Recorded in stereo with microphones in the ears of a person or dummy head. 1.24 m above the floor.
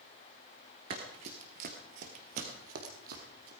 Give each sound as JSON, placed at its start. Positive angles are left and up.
{"t": 0.9, "sound": "running footsteps", "side_deg": -30, "distance_m": 1.6}